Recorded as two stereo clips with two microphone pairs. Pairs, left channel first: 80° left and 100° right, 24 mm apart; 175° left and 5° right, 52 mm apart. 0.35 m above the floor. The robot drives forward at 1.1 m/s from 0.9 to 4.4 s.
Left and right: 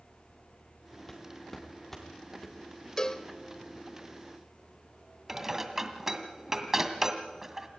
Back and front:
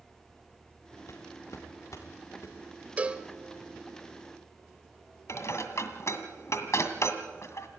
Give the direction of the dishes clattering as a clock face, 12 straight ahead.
6 o'clock.